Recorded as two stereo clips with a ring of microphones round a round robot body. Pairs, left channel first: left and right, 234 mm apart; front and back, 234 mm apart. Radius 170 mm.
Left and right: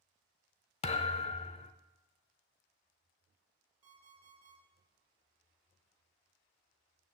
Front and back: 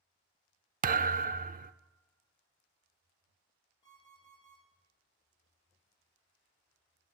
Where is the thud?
140° left, 0.5 m.